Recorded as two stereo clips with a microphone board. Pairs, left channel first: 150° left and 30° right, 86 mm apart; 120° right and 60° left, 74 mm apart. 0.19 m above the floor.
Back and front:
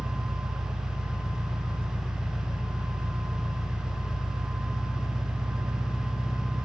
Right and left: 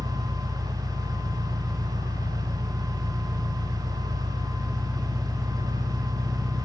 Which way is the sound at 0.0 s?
125° right.